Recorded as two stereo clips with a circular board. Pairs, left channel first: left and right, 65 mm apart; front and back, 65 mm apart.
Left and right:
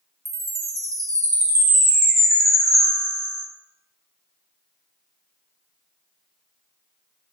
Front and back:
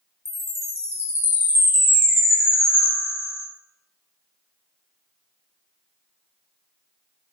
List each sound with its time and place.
0.2 s a chime: 50° right, 0.5 m